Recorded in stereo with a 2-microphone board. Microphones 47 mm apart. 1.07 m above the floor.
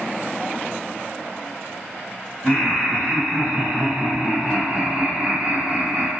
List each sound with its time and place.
2.4 s laughter: 10° left (ahead or behind), 0.9 m; by 6.1 s 30° right (ahead or behind), 1.3 m